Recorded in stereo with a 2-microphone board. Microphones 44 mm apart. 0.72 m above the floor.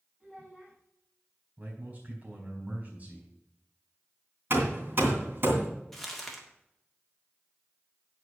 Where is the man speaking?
35° right (ahead or behind), 4.5 m.